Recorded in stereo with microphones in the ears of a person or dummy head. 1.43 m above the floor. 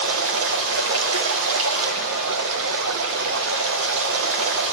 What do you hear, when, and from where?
0.0 s running water: 70° right (ahead or behind), 0.9 m